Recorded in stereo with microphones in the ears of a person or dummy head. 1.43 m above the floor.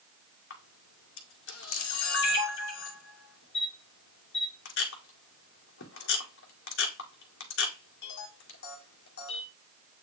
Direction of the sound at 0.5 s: 65° left (ahead or behind).